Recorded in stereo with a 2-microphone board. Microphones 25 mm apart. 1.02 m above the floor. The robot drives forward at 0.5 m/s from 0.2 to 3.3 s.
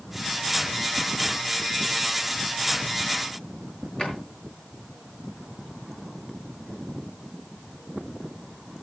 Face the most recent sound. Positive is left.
turn(degrees=40)  # may be behind; listen again after turning